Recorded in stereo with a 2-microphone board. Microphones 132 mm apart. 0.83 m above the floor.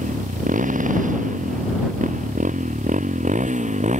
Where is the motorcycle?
90° right; by 4.0 s 65° right (ahead or behind).